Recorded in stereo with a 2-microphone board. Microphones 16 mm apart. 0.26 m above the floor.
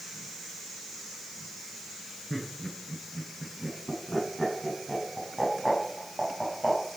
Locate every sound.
2.3 s laughter: centre (ahead or behind), 10 m; by 6.8 s 10° left (ahead or behind), 7.5 m